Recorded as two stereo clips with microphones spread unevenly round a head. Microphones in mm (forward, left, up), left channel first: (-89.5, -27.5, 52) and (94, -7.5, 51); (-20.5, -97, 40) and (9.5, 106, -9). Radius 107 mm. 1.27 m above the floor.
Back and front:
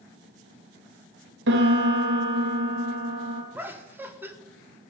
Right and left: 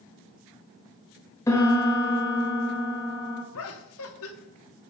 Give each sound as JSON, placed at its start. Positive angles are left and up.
{"t": 1.5, "sound": "a piano", "azimuth_deg": -20, "distance_m": 1.7}
{"t": 3.5, "sound": "laughter", "azimuth_deg": -75, "distance_m": 1.2}